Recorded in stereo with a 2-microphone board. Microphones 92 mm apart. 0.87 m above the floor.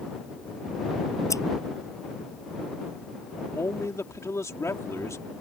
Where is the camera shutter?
I don't hear a camera shutter.